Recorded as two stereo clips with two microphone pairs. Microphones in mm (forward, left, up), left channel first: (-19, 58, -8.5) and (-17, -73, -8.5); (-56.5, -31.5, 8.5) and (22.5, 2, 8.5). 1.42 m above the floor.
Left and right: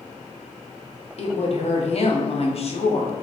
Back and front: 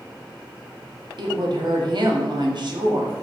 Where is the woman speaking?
55° left, 0.7 m.